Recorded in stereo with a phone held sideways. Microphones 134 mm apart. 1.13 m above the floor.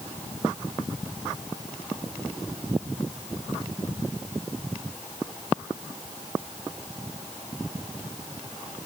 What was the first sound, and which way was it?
Only background noise.